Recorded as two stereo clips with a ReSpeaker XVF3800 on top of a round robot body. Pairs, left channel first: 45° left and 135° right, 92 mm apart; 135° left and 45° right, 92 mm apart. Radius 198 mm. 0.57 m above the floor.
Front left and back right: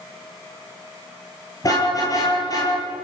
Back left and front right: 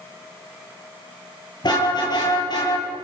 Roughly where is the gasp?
I don't hear a gasp.